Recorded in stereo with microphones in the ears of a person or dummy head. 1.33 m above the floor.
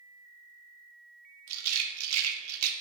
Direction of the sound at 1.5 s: 90° right.